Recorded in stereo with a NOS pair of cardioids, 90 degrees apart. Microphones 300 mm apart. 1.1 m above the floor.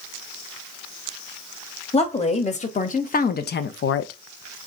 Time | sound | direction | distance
1.9 | a woman speaking | 20° left | 1.6 m